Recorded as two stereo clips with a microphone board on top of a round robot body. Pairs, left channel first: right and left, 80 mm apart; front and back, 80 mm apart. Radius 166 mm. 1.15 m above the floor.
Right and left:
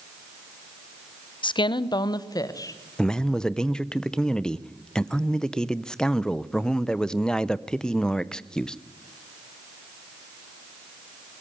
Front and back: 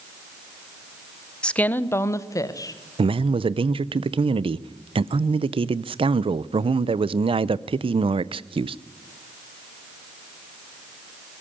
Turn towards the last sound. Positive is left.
turn(degrees=-175)